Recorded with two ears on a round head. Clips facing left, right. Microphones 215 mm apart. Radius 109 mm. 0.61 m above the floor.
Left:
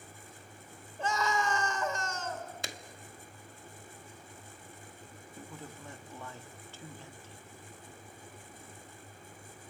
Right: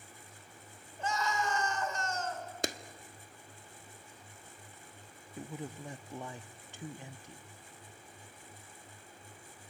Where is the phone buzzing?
No phone buzzing in this recording.